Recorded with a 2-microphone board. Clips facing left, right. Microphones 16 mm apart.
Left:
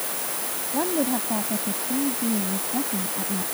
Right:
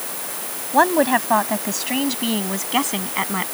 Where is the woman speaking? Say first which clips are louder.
Right 9 dB; 85° right.